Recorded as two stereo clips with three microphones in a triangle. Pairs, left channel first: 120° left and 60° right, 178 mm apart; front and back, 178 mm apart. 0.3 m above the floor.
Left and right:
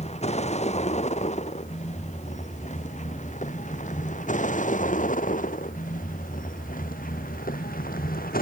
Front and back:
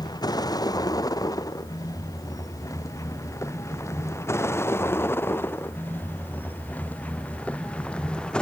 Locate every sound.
0.0 s a vehicle: 70° left; by 8.4 s 85° left